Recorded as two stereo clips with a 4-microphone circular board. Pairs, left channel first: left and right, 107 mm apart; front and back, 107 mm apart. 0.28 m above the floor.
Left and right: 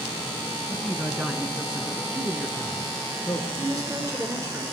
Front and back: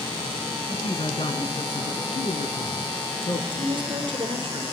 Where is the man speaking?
20° right, 3 m; by 3.5 s 10° left, 4.5 m.